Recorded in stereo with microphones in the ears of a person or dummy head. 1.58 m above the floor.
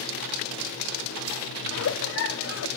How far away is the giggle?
About 1.0 m.